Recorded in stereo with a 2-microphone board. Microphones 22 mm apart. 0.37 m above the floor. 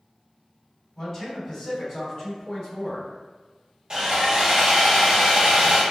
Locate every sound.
0.9 s a man speaking: 30° left (ahead or behind), 1.9 m
3.9 s sawing: 35° right (ahead or behind), 0.9 m